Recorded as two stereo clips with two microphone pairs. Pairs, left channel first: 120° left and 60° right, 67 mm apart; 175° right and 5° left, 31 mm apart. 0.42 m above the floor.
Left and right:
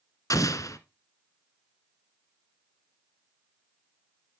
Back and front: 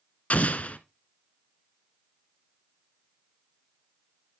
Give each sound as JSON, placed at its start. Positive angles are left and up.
{"t": 0.3, "sound": "an explosion", "azimuth_deg": 150, "distance_m": 0.9}